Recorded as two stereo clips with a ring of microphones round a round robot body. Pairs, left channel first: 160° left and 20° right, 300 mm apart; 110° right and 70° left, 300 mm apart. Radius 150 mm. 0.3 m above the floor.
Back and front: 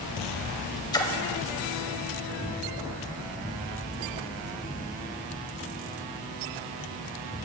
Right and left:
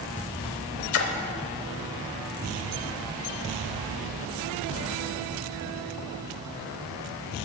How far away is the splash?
About 0.8 m.